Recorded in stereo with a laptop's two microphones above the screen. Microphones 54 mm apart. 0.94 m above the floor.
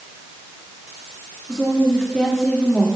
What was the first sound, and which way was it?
A woman speaking, 5° left (ahead or behind).